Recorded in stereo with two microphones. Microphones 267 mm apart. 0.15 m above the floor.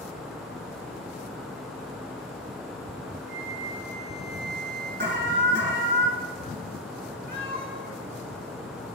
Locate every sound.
3.3 s a flute: 60° right (ahead or behind), 3.5 m
5.0 s an alarm: 40° right (ahead or behind), 1.6 m
7.3 s a cat meowing: 35° right (ahead or behind), 3 m